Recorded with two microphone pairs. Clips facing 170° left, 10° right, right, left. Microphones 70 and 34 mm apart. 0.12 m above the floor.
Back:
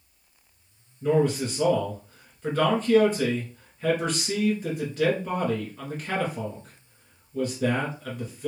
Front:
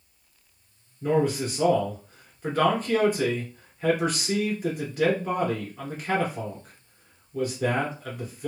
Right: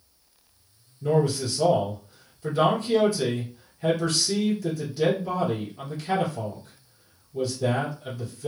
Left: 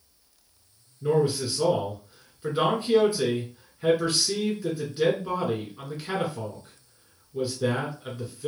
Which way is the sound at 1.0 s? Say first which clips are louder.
Back 1 dB, even; 65° left.